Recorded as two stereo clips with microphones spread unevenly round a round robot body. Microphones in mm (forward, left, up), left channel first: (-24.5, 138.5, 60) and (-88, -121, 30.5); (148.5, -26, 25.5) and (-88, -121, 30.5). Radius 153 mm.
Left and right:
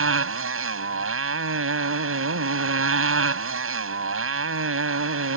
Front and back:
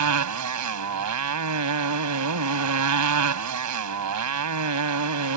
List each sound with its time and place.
0.0 s a motorcycle: 145° right